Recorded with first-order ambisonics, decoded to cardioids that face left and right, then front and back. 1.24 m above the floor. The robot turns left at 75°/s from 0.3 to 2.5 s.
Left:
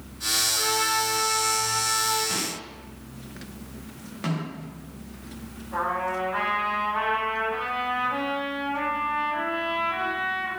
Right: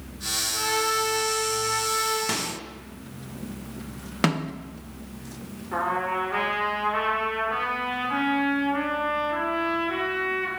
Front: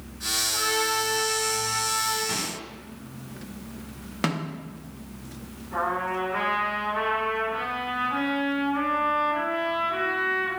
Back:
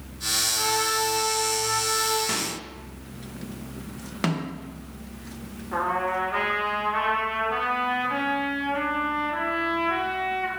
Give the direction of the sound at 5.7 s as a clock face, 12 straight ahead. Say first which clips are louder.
Right 1 dB, back 2 dB; 4 o'clock.